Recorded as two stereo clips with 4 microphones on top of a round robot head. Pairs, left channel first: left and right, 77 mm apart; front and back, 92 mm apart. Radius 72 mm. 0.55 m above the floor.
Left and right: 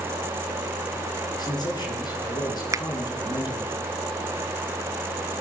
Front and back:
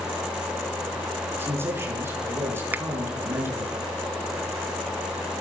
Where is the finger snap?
115° right, 0.9 m.